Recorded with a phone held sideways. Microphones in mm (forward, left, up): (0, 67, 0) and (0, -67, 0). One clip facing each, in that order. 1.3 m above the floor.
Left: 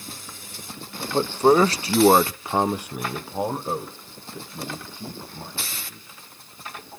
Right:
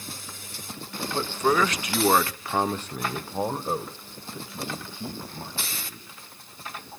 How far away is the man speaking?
About 0.7 m.